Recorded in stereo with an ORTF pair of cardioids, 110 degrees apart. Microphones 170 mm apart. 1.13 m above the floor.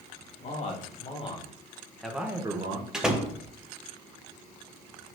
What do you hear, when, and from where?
0.4 s a man speaking: 50° left, 2 m; by 2.8 s 40° right, 1.2 m
2.9 s a door slam: 5° right, 0.9 m